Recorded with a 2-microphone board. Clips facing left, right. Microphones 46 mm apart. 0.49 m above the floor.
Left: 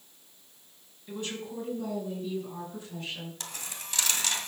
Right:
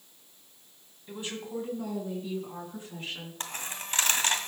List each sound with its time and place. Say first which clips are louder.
1.1 s a woman speaking: even; 15° right (ahead or behind), 3.5 m; by 3.3 s 25° right (ahead or behind), 6.5 m
3.4 s a dropped coin: right 4 dB; 35° right (ahead or behind), 1.5 m